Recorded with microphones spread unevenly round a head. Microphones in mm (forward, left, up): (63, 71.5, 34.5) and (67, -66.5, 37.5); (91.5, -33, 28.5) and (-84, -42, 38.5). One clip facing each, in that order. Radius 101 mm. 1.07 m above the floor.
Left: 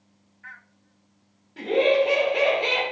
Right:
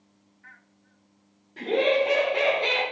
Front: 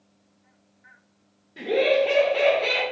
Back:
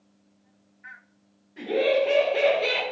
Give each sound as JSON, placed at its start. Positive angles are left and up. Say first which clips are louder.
{"t": 1.6, "sound": "laughter", "louder": "left 3 dB, front 2 dB", "azimuth_deg": 5, "distance_m": 1.0}